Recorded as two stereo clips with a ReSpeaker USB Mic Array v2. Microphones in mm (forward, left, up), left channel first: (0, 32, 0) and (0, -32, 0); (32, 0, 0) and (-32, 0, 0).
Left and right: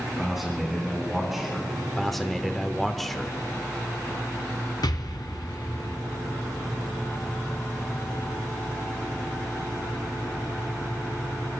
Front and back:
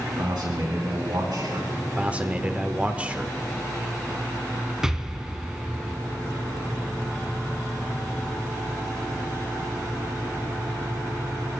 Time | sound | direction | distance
0.2 | a man speaking | 175° right | 3.5 m
2.0 | a man speaking | 175° left | 0.9 m
4.8 | an explosion | 100° left | 1.0 m